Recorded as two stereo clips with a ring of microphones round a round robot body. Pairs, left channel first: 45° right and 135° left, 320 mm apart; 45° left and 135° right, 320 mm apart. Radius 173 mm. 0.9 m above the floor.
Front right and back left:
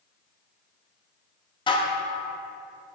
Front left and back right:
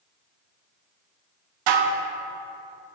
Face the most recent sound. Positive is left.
turn(degrees=-120)